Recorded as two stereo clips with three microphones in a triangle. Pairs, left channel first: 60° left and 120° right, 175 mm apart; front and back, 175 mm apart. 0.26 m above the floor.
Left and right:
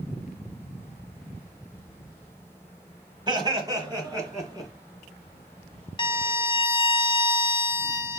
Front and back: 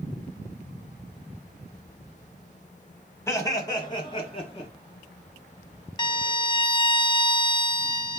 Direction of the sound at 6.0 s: 35° left.